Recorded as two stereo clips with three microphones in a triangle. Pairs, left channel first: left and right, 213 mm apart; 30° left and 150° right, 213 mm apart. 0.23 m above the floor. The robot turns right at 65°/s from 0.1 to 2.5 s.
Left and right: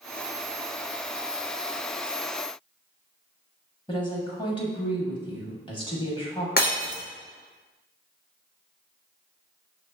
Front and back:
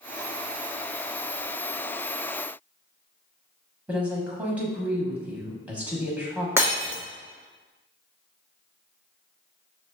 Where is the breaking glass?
135° left, 1.3 m.